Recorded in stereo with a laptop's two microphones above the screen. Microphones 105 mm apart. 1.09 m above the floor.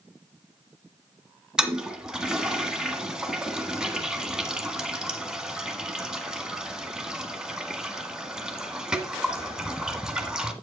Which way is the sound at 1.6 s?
5° right (ahead or behind).